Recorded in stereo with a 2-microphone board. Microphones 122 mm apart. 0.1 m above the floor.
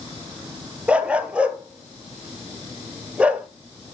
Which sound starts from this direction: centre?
A dog barking, at 0.9 s.